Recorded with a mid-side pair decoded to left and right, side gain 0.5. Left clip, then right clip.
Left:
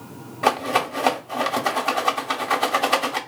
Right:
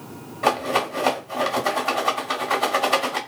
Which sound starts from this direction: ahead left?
A rattle, at 0.4 s.